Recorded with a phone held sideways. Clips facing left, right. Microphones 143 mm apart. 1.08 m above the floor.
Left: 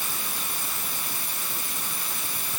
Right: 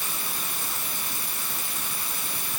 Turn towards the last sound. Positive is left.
No sound to turn to.